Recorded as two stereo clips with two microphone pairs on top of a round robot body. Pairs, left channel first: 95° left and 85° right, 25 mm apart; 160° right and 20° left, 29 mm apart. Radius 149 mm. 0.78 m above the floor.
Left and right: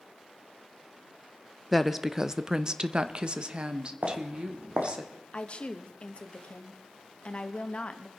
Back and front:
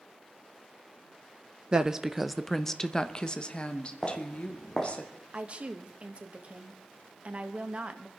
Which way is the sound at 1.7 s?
20° right.